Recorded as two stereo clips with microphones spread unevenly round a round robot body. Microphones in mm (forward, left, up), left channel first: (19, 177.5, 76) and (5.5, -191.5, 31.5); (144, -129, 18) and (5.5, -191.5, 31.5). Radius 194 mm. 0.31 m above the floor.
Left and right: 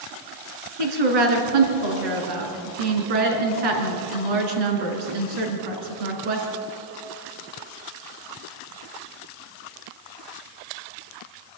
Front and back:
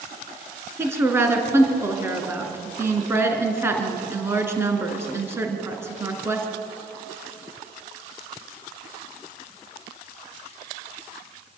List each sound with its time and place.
0.8 s a woman speaking: 80° right, 4.5 m